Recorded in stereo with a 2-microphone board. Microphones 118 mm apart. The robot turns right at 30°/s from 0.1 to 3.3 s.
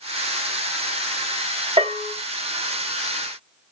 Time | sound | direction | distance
1.8 | a bell | 45° right (ahead or behind) | 1.1 m